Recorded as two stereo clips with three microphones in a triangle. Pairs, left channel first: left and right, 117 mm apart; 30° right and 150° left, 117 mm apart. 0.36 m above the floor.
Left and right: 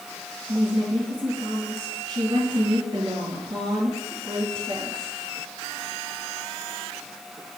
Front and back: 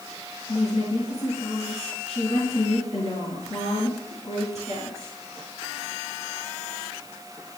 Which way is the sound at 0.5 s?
50° right.